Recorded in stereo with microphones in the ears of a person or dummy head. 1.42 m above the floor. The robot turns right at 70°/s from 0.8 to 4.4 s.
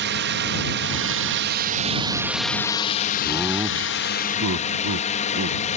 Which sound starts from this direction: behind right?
A drone, at 0.0 s.